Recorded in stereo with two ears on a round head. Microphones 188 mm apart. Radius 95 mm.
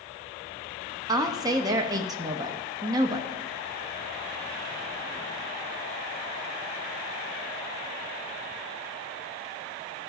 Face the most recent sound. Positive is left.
turn(degrees=-20)  # may be behind; listen again after turning